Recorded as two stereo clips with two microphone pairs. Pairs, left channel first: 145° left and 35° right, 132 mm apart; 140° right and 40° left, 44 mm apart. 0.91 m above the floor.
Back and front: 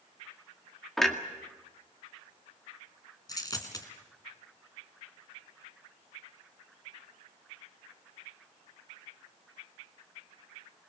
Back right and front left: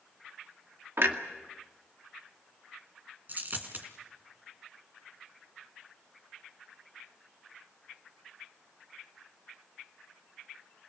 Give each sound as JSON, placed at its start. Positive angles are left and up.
{"t": 1.0, "sound": "a clunk", "azimuth_deg": 60, "distance_m": 2.0}
{"t": 3.3, "sound": "a dropped coin", "azimuth_deg": 85, "distance_m": 2.5}